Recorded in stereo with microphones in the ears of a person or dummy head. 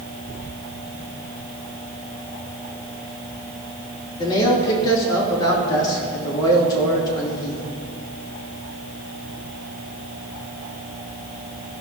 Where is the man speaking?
25° left (ahead or behind), 3 m.